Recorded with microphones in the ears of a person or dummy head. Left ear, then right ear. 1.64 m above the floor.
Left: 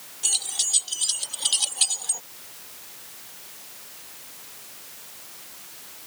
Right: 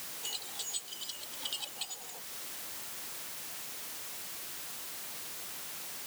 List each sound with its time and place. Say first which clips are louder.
0.2 s keys jangling: left 15 dB; 50° left (ahead or behind); by 2.2 s 60° left (ahead or behind)